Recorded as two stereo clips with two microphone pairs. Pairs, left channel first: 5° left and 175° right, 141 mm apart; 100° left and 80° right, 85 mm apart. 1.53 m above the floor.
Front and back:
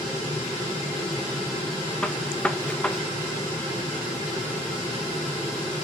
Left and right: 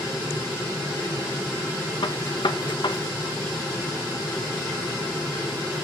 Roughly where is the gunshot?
Left.